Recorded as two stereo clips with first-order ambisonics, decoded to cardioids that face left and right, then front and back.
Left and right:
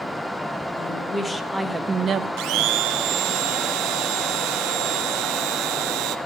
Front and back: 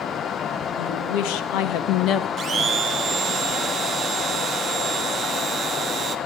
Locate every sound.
0.8 s a woman speaking: 20° left, 1.7 m; by 2.3 s 50° right, 0.8 m
2.4 s a blender: 115° right, 0.9 m